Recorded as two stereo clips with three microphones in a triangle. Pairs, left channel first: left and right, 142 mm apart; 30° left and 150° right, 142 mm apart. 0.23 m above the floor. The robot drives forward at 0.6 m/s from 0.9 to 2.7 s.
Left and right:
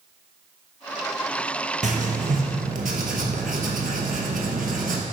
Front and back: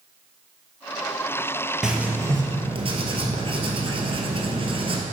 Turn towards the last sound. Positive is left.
turn(degrees=-100)